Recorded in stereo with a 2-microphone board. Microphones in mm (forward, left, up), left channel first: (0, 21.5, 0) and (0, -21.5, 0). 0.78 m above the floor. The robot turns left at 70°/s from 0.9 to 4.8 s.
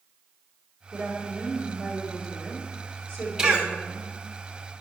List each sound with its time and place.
0.9 s a woman speaking: 95° right, 1.9 m; by 4.1 s 40° left, 1.9 m
3.4 s a cough: 15° right (ahead or behind), 0.9 m; by 3.7 s 30° right (ahead or behind), 0.9 m